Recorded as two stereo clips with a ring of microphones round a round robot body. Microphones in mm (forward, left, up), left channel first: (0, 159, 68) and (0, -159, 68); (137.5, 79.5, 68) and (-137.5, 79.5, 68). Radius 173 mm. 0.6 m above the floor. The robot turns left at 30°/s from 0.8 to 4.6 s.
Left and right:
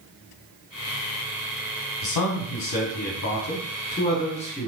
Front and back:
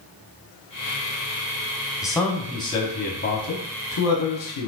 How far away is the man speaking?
About 1.2 m.